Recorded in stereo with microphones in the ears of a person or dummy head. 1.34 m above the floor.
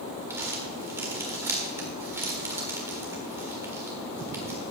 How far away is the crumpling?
About 1.4 m.